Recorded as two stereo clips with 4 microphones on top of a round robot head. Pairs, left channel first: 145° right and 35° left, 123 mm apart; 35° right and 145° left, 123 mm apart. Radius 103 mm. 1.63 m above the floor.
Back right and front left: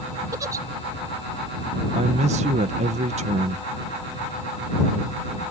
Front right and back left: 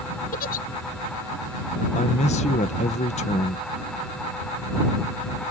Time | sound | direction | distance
0.3 | a giggle | 30° right | ?
1.9 | a man speaking | straight ahead | ?